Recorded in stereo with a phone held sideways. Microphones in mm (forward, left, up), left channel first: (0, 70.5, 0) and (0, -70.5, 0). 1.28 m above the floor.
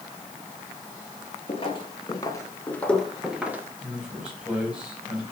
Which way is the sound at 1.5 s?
40° left (ahead or behind).